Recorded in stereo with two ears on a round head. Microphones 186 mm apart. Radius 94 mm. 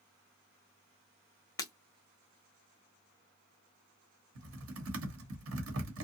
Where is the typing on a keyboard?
65° right (ahead or behind), 1.0 m.